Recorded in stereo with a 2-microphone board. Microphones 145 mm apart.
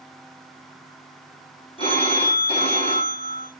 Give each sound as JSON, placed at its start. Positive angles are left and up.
{"t": 1.8, "sound": "a phone ringing", "side_deg": 40, "distance_m": 4.0}